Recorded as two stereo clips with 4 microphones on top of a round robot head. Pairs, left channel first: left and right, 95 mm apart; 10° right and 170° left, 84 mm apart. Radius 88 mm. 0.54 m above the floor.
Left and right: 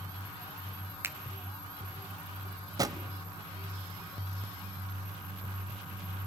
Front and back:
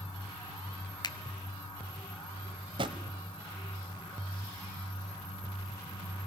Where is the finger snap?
30° right, 1.0 m.